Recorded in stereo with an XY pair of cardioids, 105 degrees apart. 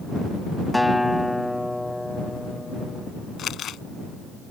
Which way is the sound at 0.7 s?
10° left.